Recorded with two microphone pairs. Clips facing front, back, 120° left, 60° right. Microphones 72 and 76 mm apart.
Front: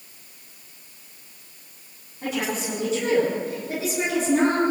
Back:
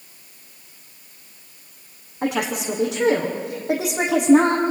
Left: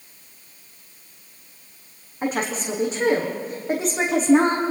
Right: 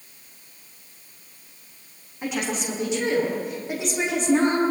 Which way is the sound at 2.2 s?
170° left.